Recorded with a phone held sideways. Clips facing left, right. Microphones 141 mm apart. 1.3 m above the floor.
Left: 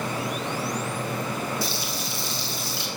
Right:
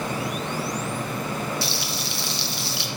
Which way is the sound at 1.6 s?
80° right.